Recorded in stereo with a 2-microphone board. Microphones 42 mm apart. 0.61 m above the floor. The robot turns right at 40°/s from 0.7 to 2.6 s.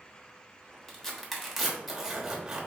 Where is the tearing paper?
10° left (ahead or behind), 1.0 m; by 2.7 s 20° right (ahead or behind), 1.0 m.